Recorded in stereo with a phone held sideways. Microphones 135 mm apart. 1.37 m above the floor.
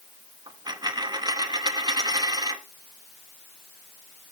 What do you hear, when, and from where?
0.5 s a dropped coin: 30° right (ahead or behind), 0.8 m